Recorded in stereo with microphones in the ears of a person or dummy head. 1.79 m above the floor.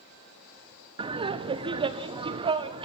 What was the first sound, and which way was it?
Laughter, 30° right (ahead or behind).